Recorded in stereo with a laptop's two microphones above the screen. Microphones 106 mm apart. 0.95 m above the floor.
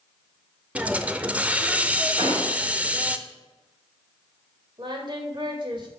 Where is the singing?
50° right (ahead or behind), 1.8 m.